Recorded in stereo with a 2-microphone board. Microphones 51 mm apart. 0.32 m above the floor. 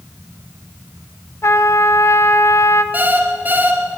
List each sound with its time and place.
1.4 s a trumpet: 65° left (ahead or behind), 1.2 m
2.9 s an alarm clock: 35° right (ahead or behind), 3.5 m